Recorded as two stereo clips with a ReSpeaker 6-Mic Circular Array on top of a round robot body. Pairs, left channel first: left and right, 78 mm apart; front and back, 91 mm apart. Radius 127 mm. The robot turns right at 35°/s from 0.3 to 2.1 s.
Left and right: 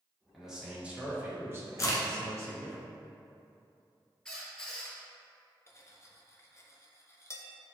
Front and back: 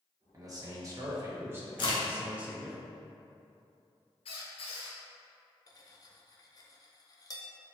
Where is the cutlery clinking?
40° left, 0.8 m.